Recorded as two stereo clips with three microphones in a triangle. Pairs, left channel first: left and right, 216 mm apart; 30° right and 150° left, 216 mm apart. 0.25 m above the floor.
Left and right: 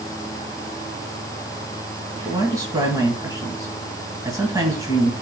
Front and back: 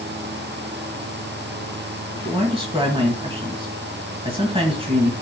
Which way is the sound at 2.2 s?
155° right.